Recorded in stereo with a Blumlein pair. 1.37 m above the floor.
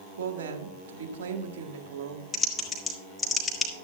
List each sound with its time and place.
0.2 s a woman speaking: 60° right, 1.7 m
2.3 s typing on a keyboard: 15° left, 2.0 m